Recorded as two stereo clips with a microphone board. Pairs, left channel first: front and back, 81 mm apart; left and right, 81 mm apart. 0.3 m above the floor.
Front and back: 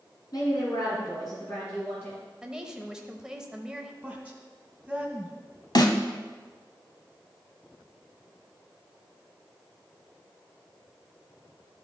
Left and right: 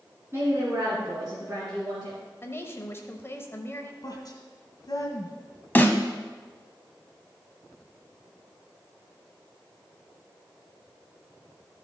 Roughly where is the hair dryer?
I don't hear a hair dryer.